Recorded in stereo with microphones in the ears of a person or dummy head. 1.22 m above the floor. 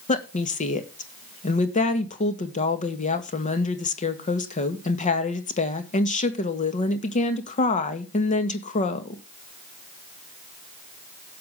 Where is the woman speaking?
35° left (ahead or behind), 1.7 m.